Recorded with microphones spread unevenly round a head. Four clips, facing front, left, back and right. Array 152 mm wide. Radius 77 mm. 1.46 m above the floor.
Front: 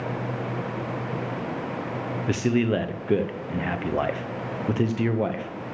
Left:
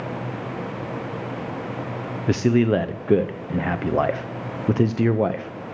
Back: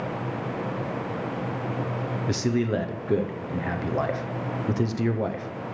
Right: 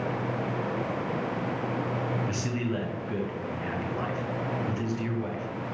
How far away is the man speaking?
About 0.5 m.